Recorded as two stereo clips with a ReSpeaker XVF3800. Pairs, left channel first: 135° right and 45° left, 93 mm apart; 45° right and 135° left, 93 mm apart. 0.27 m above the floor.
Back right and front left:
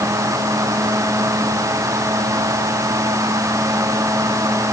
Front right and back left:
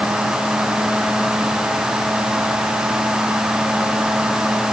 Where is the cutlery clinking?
I don't hear cutlery clinking.